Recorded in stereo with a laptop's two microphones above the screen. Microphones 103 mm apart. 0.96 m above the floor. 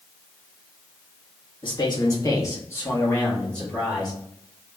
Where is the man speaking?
50° left (ahead or behind), 1.4 m; by 4.2 s 5° left (ahead or behind), 2 m.